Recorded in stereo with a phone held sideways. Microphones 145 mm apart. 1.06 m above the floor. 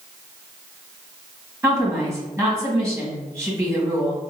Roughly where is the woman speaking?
Centre.